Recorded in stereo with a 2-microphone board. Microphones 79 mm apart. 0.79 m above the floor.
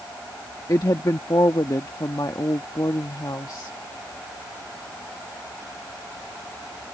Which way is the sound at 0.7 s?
55° left (ahead or behind).